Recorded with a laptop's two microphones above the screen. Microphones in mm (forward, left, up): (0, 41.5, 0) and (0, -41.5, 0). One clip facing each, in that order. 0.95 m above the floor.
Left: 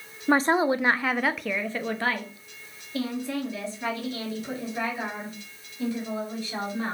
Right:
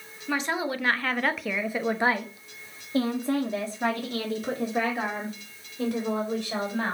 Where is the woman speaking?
40° left (ahead or behind), 0.8 m; by 7.0 s 60° right (ahead or behind), 3 m.